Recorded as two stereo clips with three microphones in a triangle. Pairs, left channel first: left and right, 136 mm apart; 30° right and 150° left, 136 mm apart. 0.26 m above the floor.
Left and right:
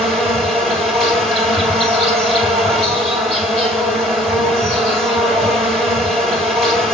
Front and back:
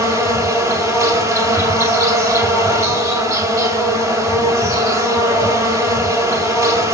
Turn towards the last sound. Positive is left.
turn(degrees=170)